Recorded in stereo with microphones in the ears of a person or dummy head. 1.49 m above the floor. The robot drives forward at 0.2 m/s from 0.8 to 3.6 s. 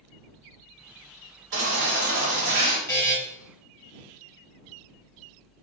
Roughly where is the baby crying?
Right.